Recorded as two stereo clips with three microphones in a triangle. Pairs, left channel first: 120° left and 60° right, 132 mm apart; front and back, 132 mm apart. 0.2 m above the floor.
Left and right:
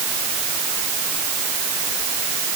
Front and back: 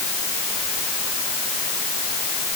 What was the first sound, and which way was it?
Only background noise.